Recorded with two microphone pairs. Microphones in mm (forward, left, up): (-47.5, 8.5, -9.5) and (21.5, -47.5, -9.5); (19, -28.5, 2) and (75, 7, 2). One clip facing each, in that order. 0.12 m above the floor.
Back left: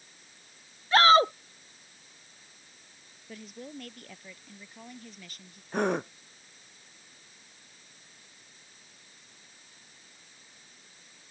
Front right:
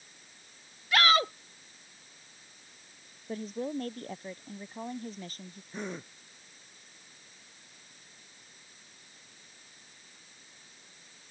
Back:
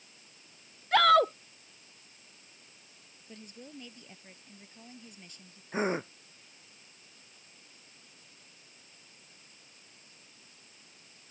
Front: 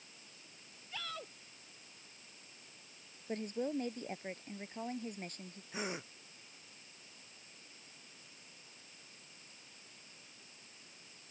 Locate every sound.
0.9 s a shout: 160° right
3.3 s a woman speaking: 10° left
5.7 s a gasp: 160° left